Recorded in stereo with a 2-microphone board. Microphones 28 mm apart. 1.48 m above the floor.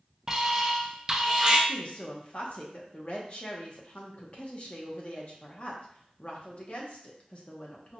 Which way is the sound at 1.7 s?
50° left (ahead or behind).